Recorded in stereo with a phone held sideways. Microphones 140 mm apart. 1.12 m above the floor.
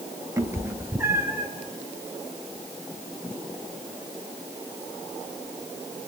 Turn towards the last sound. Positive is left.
turn(degrees=-15)  # may be behind; listen again after turning